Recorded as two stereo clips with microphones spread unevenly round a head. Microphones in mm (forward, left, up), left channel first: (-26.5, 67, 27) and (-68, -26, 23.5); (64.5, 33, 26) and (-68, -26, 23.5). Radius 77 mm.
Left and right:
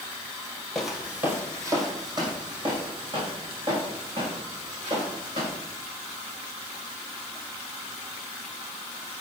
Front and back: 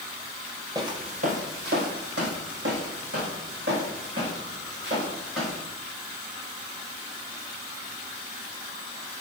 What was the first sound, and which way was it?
Footsteps, 150° left.